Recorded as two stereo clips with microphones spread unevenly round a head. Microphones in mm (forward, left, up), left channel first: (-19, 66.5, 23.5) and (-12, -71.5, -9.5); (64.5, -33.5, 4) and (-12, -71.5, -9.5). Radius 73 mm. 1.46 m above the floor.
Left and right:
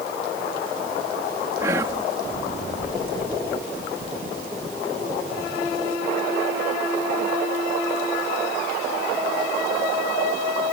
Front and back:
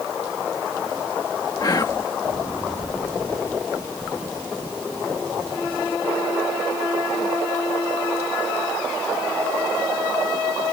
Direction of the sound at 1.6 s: 15° right.